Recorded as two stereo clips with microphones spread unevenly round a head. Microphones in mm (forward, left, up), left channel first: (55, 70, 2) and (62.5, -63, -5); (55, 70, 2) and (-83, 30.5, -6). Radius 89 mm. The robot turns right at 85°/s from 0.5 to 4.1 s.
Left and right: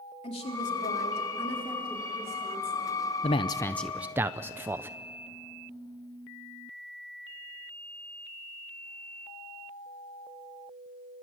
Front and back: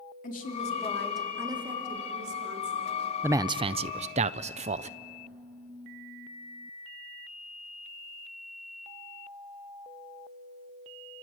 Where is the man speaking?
130° left, 0.5 m; by 5.0 s 155° right, 0.5 m.